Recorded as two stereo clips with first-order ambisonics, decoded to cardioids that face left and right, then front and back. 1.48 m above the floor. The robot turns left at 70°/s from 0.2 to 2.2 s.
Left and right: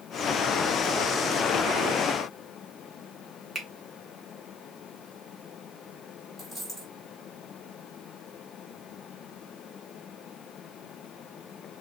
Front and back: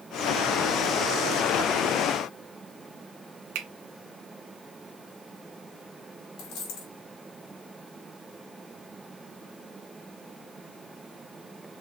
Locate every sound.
3.5 s a finger snap: 165° right, 0.9 m
6.4 s a dropped coin: 5° right, 2.0 m